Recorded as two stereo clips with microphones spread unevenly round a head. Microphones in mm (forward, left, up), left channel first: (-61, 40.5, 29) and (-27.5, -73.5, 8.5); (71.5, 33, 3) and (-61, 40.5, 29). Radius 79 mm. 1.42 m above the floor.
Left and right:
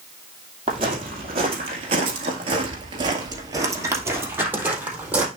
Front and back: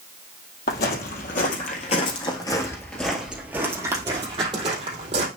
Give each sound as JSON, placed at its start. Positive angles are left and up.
{"t": 0.7, "sound": "footsteps", "azimuth_deg": -15, "distance_m": 2.5}